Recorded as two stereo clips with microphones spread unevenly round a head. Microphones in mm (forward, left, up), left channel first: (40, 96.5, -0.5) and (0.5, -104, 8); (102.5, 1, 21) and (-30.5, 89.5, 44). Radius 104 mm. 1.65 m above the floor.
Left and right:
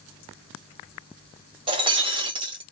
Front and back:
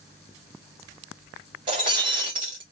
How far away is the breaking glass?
About 1.1 m.